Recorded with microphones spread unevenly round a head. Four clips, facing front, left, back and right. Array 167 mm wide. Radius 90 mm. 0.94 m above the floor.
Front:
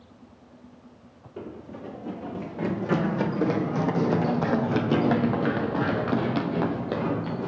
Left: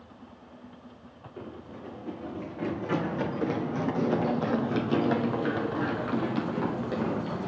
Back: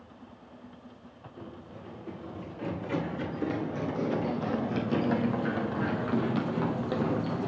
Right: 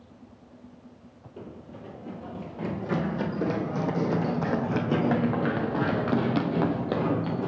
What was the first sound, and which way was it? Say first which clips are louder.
Running footsteps: left 1 dB, front 8 dB; 5° right.